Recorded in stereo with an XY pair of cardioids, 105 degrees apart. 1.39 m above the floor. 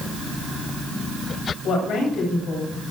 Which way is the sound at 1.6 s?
65° left.